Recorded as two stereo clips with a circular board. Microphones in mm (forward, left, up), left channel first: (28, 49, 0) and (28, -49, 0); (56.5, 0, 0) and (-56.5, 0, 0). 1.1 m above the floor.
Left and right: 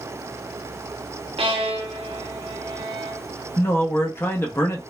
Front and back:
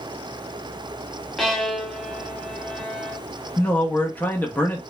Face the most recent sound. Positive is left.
turn(degrees=55)